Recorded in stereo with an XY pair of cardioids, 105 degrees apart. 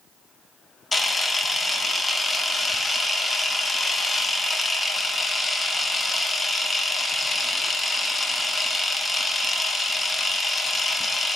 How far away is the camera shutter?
About 0.5 m.